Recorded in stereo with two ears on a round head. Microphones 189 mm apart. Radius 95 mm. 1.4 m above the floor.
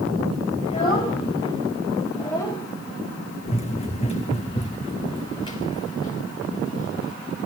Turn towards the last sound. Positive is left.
turn(degrees=20)  # may be behind; listen again after turning